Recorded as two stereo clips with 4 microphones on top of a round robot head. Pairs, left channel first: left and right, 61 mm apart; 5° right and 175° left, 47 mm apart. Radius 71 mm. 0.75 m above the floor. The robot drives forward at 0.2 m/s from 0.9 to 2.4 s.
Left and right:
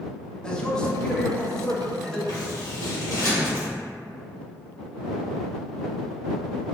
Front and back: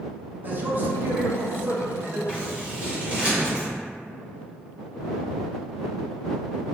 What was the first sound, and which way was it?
A man speaking, 160° left.